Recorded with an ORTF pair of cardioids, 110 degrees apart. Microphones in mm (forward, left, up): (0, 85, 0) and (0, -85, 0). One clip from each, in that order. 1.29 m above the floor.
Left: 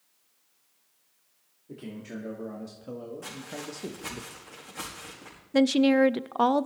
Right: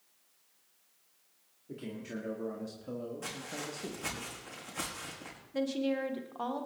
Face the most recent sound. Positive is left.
turn(degrees=60)